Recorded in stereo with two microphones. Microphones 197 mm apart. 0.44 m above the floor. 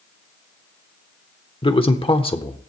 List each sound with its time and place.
1.6 s a man speaking: 25° left (ahead or behind), 1.2 m